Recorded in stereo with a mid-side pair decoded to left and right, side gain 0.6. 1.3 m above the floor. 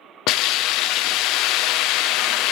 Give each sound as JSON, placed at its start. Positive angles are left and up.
{"t": 0.3, "sound": "a hiss", "azimuth_deg": 70, "distance_m": 0.5}